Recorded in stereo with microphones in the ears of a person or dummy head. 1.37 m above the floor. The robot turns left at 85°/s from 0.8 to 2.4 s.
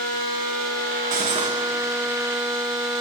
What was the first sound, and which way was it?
Cutlery clinking, 115° right.